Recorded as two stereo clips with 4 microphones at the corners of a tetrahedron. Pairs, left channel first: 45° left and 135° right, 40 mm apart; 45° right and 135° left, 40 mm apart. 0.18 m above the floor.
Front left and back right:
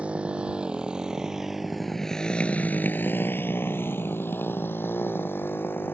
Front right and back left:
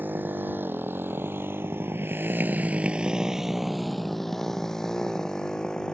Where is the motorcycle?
170° left; by 5.9 s 25° left.